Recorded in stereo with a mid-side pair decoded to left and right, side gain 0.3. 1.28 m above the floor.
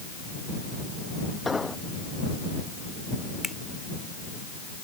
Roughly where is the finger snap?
Ahead left.